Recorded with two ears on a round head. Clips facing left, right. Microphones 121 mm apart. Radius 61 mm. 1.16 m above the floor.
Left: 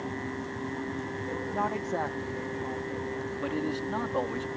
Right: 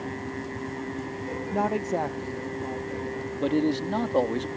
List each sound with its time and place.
1.5 s a woman speaking: 30° right (ahead or behind); by 3.3 s 15° right (ahead or behind)
3.4 s a man speaking: 40° right (ahead or behind)